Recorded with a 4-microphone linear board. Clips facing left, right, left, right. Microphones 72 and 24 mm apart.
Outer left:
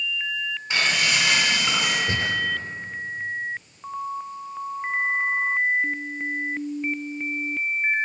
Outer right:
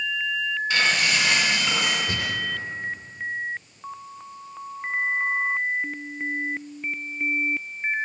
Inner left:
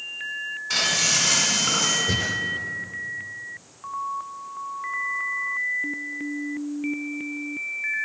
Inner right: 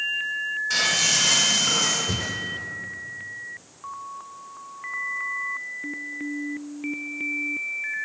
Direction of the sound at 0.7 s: 20° left (ahead or behind).